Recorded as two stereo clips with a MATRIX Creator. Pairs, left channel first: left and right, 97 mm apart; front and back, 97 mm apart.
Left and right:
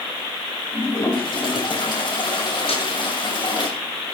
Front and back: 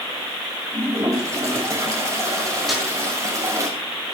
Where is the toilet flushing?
120° left, 6 m.